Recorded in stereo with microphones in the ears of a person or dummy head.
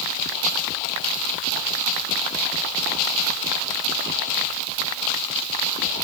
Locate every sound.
Only background noise.